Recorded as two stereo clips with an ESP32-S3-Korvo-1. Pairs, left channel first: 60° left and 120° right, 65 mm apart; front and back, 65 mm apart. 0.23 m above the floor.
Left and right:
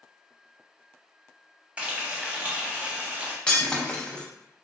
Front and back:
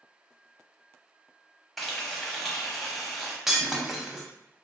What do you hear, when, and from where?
1.8 s frying: 85° right, 0.8 m
3.5 s breaking glass: 105° left, 0.5 m